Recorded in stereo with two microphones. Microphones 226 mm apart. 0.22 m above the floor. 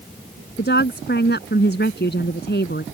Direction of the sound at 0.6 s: 50° left (ahead or behind).